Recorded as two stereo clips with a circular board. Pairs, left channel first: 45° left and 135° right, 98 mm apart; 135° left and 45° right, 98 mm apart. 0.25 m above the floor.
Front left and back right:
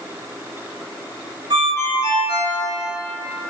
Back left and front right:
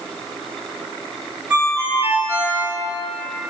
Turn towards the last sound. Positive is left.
turn(degrees=-115)